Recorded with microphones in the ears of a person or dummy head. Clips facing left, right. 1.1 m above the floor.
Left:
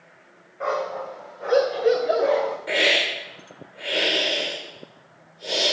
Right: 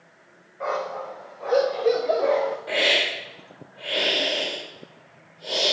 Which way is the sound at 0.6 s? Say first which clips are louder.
Left 2 dB; 15° left (ahead or behind).